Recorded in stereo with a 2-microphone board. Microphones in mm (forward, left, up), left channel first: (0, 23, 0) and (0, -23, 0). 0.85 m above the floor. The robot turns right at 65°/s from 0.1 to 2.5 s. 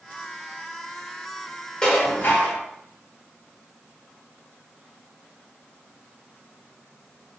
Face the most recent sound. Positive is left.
turn(degrees=60)